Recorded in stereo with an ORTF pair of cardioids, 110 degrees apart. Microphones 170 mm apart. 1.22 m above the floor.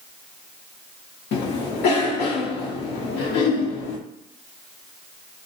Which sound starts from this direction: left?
A cough, at 1.3 s.